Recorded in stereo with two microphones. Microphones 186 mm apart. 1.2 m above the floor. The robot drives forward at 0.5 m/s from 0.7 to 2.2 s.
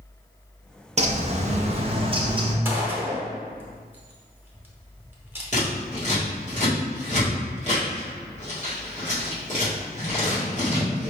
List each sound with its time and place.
1.0 s a bird: 40° right (ahead or behind), 0.6 m; by 2.5 s 30° right (ahead or behind), 0.8 m
2.6 s a gunshot: 10° right (ahead or behind), 0.9 m
5.5 s scissors: 45° left (ahead or behind), 1.8 m